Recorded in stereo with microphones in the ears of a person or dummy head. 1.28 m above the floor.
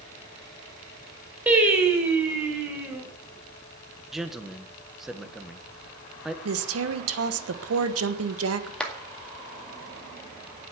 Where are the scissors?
I don't hear scissors.